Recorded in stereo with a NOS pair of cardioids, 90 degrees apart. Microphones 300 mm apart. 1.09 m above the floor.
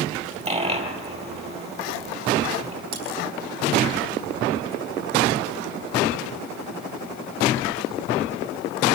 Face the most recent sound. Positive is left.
turn(degrees=-70)